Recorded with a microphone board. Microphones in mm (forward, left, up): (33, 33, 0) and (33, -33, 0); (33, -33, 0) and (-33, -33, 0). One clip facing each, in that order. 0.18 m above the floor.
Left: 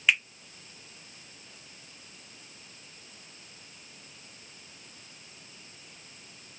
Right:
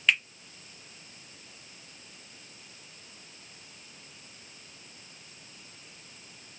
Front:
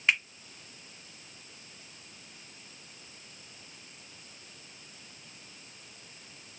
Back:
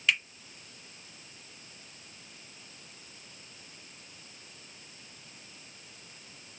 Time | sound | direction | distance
0.1 | a finger snap | 20° left | 1.1 m